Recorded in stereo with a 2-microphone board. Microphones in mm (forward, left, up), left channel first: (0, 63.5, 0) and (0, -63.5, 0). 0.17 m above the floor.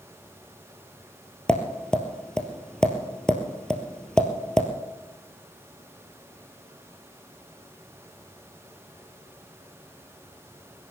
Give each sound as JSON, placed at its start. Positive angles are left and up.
{"t": 1.5, "sound": "tapping", "side_deg": 5, "distance_m": 1.8}